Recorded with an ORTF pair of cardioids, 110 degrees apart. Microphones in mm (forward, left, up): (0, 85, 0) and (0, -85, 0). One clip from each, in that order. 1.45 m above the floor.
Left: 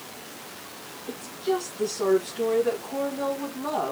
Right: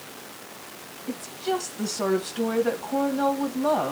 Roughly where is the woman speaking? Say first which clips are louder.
Even; ahead right.